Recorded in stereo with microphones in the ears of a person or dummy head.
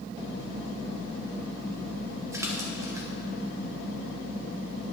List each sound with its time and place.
2.3 s a splash: 15° right (ahead or behind), 0.9 m